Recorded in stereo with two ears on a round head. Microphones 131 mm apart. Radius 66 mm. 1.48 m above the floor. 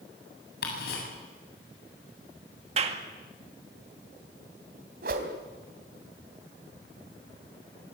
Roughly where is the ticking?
Left.